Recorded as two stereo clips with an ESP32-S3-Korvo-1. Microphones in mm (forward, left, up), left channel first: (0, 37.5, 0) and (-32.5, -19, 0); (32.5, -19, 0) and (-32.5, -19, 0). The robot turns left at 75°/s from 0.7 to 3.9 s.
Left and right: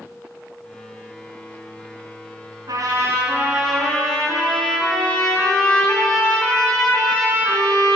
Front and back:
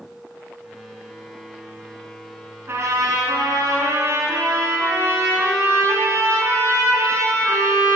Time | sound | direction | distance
2.7 | a trumpet | 135° right | 3.5 m